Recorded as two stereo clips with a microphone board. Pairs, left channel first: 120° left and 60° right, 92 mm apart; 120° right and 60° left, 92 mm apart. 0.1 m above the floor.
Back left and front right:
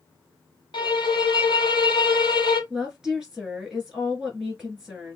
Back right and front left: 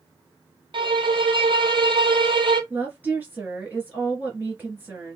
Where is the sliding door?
I don't hear a sliding door.